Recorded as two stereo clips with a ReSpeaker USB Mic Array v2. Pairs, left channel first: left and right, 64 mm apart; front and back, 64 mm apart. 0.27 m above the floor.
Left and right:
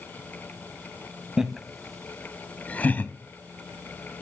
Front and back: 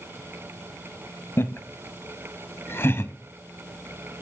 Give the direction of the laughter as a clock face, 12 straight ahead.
12 o'clock.